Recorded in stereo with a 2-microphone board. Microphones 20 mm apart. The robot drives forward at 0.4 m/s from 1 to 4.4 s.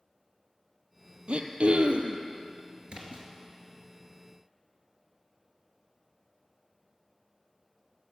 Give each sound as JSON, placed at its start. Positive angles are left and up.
{"t": 1.3, "sound": "throat clearing", "side_deg": -75, "distance_m": 0.7}
{"t": 2.9, "sound": "a splash", "side_deg": -60, "distance_m": 1.5}